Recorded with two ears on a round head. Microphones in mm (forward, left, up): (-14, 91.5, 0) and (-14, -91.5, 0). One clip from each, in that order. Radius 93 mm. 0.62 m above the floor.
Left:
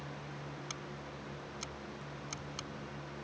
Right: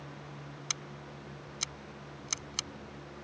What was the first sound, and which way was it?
Scissors, 45° right (ahead or behind).